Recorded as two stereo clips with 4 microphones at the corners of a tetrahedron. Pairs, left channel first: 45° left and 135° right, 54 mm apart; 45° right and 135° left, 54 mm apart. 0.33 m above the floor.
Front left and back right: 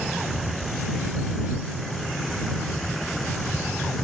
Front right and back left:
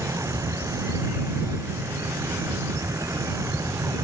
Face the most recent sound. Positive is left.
turn(degrees=130)